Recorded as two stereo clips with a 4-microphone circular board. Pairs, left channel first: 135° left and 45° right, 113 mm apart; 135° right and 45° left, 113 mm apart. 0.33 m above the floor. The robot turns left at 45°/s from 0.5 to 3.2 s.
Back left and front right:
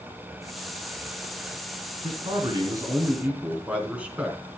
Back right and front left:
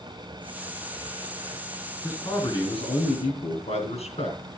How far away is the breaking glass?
I don't hear breaking glass.